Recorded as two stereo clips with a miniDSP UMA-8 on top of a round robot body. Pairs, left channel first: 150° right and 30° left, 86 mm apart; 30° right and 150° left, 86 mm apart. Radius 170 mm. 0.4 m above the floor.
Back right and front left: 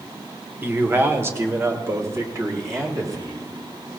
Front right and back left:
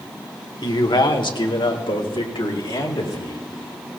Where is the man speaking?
35° right, 1.6 m; by 3.5 s 20° right, 3.5 m.